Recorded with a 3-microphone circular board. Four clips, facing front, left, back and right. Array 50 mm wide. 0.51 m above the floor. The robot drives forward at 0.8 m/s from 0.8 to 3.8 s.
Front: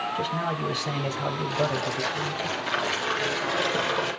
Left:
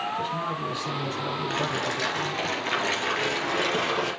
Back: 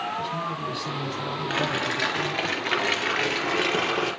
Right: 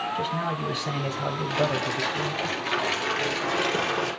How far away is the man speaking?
About 2.0 m.